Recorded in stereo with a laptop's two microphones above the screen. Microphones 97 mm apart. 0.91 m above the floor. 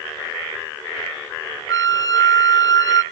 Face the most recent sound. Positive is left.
turn(degrees=45)  # may be behind; listen again after turning